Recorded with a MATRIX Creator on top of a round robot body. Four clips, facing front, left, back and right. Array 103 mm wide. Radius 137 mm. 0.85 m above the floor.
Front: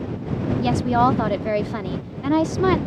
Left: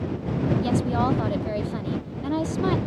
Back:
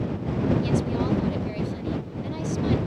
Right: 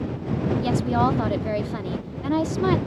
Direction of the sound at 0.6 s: 10° right.